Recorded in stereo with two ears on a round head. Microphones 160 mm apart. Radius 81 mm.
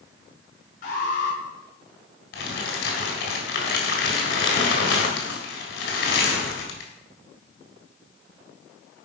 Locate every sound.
0.8 s an alarm: 45° left (ahead or behind), 5.5 m
2.3 s crumpling: 55° left (ahead or behind), 4 m